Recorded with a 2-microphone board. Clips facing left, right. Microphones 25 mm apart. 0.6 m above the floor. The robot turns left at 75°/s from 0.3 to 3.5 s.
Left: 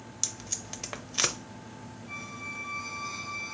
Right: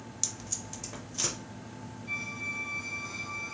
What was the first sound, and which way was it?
Tape being pulled, 15° left (ahead or behind).